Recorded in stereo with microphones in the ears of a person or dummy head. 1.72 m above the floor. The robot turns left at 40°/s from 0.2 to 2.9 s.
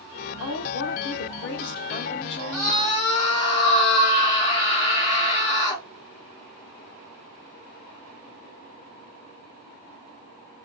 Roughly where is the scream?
Centre.